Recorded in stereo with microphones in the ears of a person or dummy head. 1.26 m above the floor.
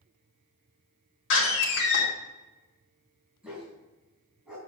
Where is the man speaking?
I don't hear a man speaking.